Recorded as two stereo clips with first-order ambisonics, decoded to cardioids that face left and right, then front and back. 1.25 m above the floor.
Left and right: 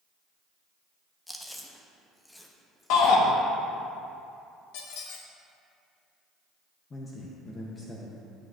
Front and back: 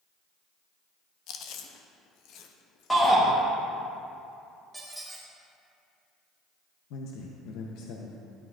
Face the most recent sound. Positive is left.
turn(degrees=20)